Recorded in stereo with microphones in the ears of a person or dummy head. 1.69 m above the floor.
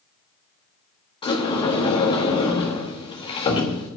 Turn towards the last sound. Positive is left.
turn(degrees=30)  # may be behind; listen again after turning